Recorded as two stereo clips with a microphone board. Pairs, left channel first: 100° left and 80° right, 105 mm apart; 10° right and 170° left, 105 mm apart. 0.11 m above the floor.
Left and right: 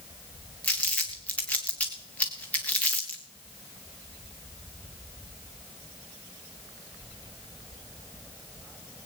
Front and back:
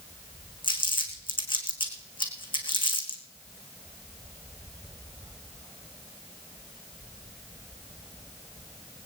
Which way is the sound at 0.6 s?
25° left.